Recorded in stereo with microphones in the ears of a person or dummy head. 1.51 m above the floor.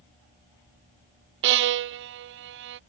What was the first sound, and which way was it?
A violin, 60° right (ahead or behind).